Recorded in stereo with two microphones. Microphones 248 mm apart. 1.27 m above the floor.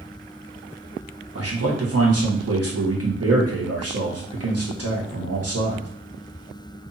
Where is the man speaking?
70° right (ahead or behind), 1.2 m.